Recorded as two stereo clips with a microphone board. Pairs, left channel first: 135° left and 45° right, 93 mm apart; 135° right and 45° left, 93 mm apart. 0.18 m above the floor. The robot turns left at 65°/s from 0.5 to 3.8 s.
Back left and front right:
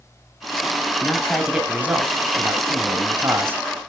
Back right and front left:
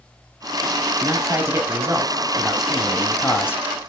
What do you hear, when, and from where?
1.0 s a man speaking: 70° left, 1.6 m; by 3.6 s 100° right, 1.6 m